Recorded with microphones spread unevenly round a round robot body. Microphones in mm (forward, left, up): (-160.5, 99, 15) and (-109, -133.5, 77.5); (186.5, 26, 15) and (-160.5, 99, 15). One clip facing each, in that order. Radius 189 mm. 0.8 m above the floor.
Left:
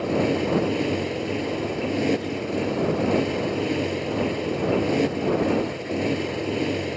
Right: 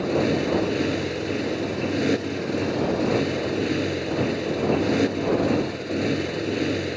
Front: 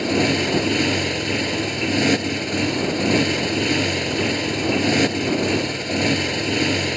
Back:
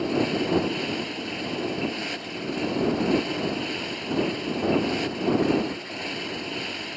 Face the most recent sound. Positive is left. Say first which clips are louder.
# right 1 dB, front 4 dB
turn(degrees=5)